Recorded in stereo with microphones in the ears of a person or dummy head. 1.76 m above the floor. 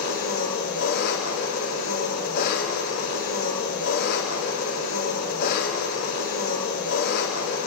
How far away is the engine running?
About 3.5 m.